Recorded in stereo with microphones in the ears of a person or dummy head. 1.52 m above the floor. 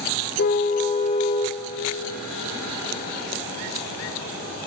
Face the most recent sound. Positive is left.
turn(degrees=25)  # may be behind; listen again after turning